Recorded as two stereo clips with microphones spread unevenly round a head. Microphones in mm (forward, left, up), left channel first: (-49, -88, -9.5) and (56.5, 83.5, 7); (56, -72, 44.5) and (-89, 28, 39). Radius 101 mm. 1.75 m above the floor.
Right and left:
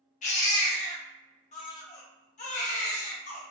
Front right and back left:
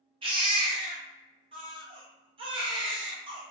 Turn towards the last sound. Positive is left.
turn(degrees=-165)